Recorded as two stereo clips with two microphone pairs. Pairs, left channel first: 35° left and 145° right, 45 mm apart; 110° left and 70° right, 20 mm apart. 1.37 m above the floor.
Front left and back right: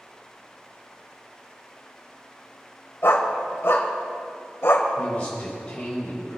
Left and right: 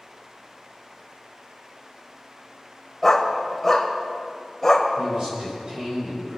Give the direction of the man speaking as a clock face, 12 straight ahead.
1 o'clock.